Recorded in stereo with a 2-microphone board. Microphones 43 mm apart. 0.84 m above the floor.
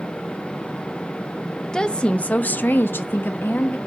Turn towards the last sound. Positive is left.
turn(degrees=55)  # may be behind; listen again after turning